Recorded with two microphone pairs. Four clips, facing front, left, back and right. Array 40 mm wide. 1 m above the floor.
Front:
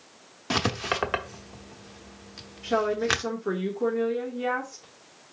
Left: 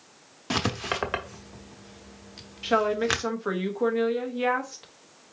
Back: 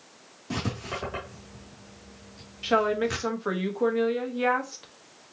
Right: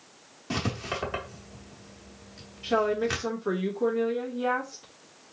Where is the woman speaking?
140° left, 1.3 m.